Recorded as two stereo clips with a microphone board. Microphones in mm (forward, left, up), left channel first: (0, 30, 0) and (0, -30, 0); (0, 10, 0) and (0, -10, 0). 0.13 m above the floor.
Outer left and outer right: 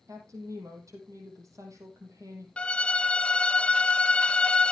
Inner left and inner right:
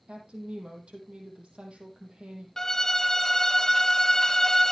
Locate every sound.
0.1 s a woman speaking: 60° right (ahead or behind), 4 m
2.6 s a violin: 20° left (ahead or behind), 0.7 m